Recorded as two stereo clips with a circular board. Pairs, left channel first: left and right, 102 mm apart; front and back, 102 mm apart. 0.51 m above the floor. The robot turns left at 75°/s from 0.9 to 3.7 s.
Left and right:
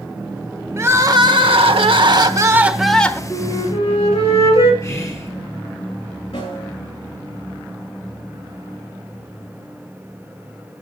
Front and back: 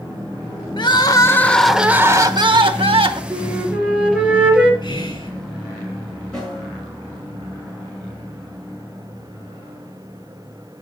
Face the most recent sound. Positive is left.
turn(degrees=80)